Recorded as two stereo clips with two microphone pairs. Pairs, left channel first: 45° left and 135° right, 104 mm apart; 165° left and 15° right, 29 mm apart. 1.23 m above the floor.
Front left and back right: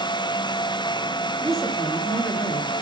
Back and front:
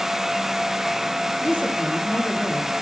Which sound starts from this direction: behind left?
A woman speaking, at 1.4 s.